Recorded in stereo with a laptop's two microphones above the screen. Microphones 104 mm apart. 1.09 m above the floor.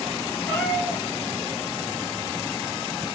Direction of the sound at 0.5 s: 10° left (ahead or behind).